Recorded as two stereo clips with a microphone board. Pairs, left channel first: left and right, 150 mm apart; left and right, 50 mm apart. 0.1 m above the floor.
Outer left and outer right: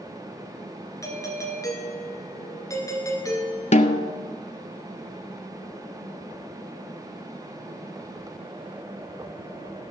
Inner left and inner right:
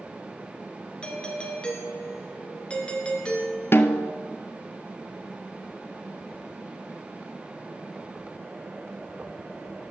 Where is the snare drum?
50° left (ahead or behind), 0.6 m.